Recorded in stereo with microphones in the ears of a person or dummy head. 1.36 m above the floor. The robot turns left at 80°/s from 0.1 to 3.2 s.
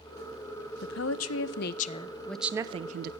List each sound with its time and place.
0.8 s a woman speaking: 125° left, 0.6 m; by 3.1 s 60° right, 0.6 m